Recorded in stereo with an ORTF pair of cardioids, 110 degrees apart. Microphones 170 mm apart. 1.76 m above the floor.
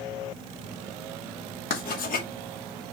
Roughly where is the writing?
Ahead left.